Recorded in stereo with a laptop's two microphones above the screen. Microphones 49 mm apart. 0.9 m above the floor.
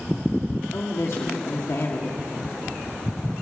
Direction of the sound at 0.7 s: 60° left (ahead or behind).